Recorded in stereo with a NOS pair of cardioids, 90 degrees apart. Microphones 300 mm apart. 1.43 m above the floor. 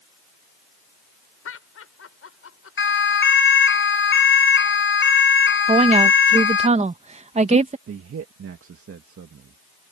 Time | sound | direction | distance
1.4 | laughter | 45° left | ?
2.8 | a siren | 40° left | ?
5.7 | a woman speaking | 20° right | ?
7.9 | a man speaking | 45° right | ?